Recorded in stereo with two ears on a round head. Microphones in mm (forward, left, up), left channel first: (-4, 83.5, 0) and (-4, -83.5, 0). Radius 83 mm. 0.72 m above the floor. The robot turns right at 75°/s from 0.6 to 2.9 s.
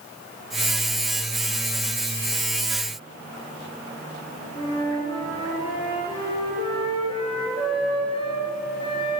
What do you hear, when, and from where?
4.5 s a flute: 30° left (ahead or behind), 9 m